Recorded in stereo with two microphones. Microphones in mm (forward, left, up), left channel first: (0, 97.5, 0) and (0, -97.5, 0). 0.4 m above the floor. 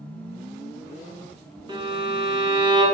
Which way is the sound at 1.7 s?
25° right (ahead or behind).